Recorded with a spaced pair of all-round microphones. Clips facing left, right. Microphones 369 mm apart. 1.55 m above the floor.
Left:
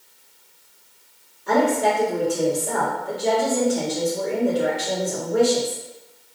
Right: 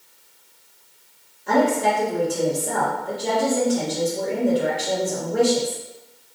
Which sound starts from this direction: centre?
A woman speaking, at 1.5 s.